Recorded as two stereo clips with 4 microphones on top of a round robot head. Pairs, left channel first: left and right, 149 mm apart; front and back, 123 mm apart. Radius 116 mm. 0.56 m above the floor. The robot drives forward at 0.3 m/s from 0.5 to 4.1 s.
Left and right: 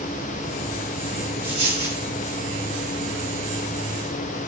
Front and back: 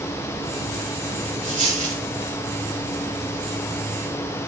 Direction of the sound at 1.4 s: 165° left.